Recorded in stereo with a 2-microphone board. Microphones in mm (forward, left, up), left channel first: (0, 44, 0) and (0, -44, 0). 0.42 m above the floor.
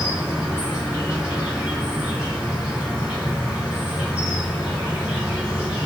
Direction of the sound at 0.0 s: 10° right (ahead or behind).